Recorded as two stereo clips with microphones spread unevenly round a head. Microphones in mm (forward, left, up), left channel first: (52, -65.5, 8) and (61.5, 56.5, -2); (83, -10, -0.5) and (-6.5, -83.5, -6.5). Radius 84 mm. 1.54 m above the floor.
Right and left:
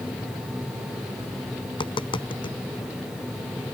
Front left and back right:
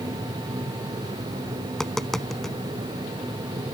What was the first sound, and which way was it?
Tapping, 45° right.